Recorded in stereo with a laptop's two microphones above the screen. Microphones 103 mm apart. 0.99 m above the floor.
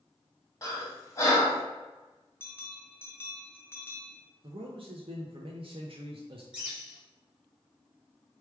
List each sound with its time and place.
0.6 s breathing: 30° left (ahead or behind), 1.6 m
2.4 s a bell: 20° left (ahead or behind), 1.2 m
4.4 s a man speaking: 60° right (ahead or behind), 0.7 m
6.5 s a bird: 10° right (ahead or behind), 1.8 m